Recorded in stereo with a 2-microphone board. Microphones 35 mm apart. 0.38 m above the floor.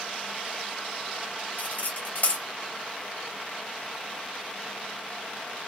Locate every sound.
1.6 s cutlery clinking: 45° left (ahead or behind), 1.1 m